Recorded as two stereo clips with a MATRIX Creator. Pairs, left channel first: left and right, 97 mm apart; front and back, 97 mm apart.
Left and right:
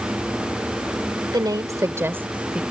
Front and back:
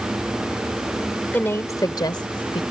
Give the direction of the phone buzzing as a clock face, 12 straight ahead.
I don't hear a phone buzzing.